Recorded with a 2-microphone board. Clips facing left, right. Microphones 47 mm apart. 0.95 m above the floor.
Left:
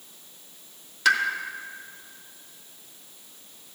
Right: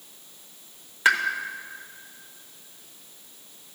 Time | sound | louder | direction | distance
1.1 | a pop | right 1 dB | 25° right (ahead or behind) | 0.8 m